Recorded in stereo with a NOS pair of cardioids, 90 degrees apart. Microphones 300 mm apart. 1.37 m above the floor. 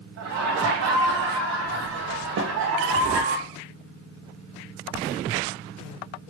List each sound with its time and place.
0.2 s laughter: 65° right, 0.7 m
2.4 s a snare drum: 55° right, 0.7 m